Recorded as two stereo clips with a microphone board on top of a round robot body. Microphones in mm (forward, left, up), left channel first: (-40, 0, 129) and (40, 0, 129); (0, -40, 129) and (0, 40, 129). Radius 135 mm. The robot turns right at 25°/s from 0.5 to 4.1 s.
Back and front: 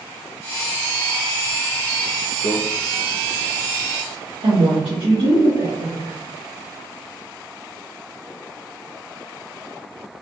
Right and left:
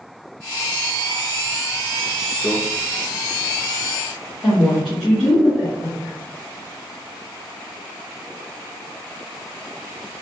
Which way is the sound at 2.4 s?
5° left.